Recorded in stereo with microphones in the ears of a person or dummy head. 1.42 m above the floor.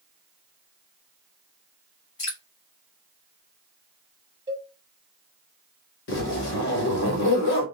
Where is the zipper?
60° left (ahead or behind), 1.5 m.